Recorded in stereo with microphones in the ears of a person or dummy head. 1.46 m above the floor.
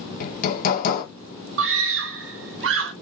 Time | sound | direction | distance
0.2 | hammering | 45° left (ahead or behind) | 2 m
1.6 | a scream | 70° right (ahead or behind) | 1.0 m